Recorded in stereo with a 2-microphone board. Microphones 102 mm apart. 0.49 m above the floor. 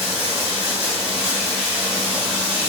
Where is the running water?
5° right (ahead or behind), 1.5 m.